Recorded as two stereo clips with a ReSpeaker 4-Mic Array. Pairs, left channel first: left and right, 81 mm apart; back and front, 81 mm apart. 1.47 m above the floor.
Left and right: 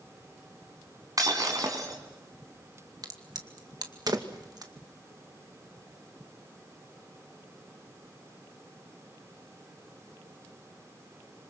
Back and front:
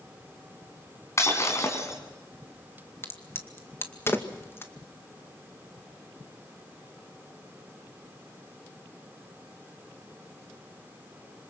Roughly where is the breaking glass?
Behind right.